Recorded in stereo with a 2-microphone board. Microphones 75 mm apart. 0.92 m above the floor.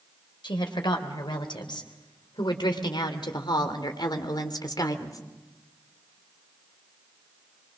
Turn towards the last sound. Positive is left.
turn(degrees=50)  # may be behind; listen again after turning